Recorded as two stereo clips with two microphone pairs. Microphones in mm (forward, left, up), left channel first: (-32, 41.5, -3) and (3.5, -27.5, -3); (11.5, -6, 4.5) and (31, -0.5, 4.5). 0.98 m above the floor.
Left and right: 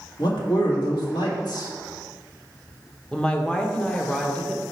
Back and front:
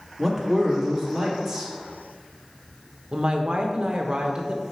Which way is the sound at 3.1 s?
45° left.